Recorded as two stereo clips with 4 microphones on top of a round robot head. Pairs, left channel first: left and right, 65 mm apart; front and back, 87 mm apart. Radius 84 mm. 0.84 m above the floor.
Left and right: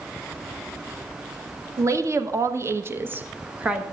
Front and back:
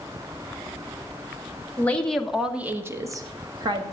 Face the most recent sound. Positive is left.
turn(degrees=-165)